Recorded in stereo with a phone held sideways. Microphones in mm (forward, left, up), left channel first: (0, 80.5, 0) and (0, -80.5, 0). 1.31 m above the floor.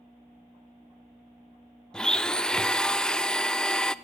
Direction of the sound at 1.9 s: 5° left (ahead or behind).